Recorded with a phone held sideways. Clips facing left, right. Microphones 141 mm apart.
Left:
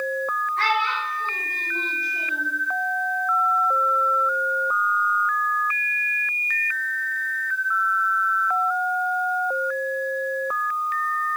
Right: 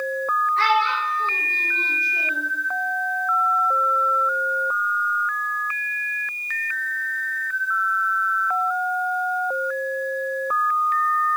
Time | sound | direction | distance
0.6 | a child speaking | 70° right (ahead or behind) | 1.6 m